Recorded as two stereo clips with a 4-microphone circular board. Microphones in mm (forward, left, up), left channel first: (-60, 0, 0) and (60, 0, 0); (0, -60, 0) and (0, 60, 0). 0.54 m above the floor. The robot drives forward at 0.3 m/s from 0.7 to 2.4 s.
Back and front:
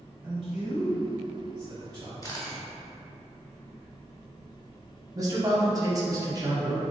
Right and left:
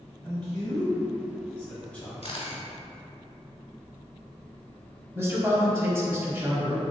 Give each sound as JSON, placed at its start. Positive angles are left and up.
{"t": 0.2, "sound": "a man speaking", "azimuth_deg": -10, "distance_m": 1.1}
{"t": 2.2, "sound": "a camera shutter", "azimuth_deg": -120, "distance_m": 1.0}
{"t": 5.2, "sound": "a man speaking", "azimuth_deg": 35, "distance_m": 0.7}